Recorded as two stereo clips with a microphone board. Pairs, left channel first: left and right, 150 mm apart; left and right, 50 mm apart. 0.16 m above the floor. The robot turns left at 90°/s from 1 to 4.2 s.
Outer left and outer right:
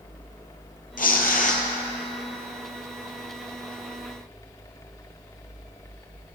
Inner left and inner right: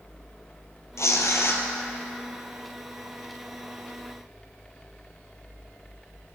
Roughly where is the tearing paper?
Left.